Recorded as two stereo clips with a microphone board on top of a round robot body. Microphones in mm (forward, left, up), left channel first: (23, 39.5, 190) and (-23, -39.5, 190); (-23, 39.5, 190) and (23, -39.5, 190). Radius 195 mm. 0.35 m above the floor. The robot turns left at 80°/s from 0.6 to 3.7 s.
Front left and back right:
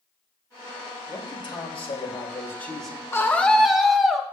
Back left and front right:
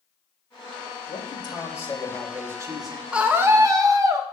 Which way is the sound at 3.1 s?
15° left.